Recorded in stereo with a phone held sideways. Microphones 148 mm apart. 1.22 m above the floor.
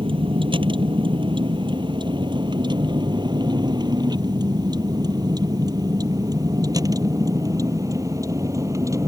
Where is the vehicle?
35° right (ahead or behind); by 9.1 s 20° right (ahead or behind).